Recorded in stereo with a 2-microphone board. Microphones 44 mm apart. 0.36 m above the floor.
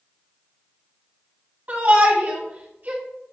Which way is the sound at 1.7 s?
40° right (ahead or behind).